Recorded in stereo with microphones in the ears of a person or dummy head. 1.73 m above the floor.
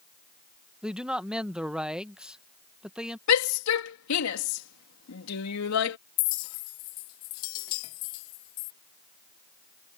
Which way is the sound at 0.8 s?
Centre (ahead or behind).